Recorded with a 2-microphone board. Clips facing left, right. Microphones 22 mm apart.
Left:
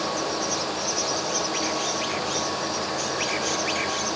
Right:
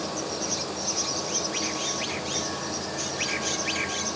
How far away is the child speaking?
No child speaking in this recording.